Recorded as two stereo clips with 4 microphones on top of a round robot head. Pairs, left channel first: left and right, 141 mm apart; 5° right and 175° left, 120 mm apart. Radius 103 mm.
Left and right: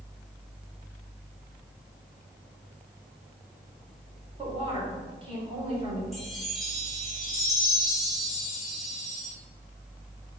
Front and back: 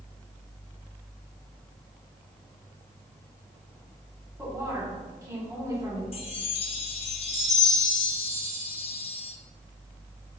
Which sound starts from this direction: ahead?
A chime, at 6.1 s.